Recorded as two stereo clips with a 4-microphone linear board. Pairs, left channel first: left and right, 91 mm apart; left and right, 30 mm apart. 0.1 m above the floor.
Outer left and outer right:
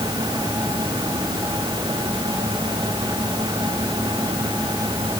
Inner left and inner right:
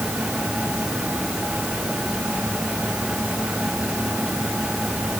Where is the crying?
I don't hear crying.